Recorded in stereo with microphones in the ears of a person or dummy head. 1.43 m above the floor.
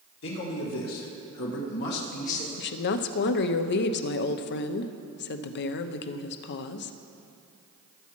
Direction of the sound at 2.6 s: 55° left (ahead or behind).